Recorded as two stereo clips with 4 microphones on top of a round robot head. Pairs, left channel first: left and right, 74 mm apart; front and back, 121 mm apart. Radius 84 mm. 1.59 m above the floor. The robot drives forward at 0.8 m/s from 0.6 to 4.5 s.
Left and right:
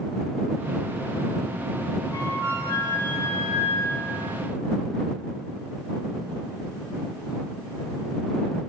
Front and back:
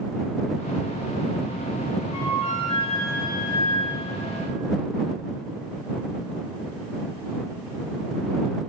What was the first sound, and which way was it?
A flute, 40° left.